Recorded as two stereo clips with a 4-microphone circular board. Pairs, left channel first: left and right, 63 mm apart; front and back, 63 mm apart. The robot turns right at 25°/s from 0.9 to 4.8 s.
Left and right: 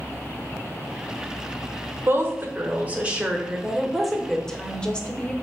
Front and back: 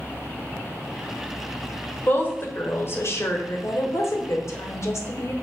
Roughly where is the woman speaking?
Ahead right.